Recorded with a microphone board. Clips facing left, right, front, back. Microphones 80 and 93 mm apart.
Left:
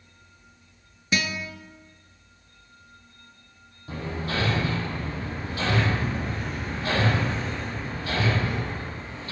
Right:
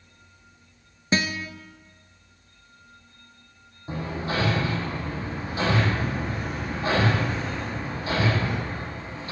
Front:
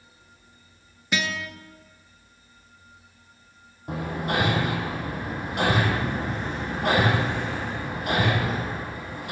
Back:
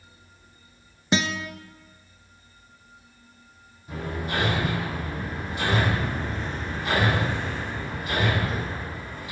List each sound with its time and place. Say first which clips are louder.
1.1 s a guitar: right 2 dB, back 3 dB; 135° right, 0.7 m
3.9 s hammering: right 2 dB, front 3 dB; 25° right, 3.5 m